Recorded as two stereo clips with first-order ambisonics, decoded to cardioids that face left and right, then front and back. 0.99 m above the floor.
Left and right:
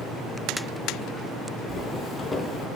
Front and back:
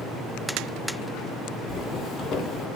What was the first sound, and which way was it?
Footsteps, 20° left.